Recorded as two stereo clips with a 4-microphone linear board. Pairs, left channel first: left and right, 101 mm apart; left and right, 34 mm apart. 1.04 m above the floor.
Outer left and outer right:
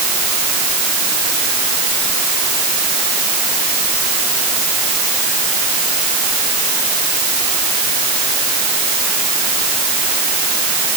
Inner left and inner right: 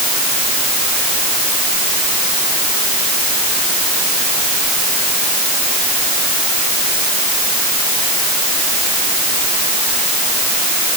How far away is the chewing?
No chewing in this recording.